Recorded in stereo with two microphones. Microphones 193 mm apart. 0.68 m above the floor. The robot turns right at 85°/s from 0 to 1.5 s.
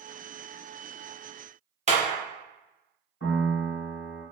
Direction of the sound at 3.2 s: 70° left (ahead or behind).